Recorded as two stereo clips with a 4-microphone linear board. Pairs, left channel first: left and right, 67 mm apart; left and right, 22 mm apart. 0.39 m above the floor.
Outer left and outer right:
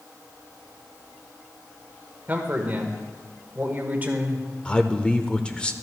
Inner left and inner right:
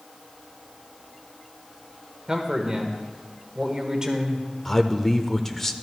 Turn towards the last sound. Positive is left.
turn(degrees=15)  # may be behind; listen again after turning